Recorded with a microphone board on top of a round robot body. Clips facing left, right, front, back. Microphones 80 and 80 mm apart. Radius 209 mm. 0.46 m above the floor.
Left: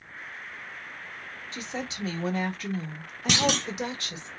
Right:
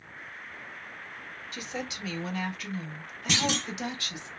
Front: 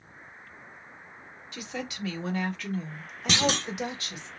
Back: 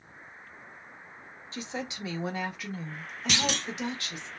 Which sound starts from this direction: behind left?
A woman speaking, at 1.5 s.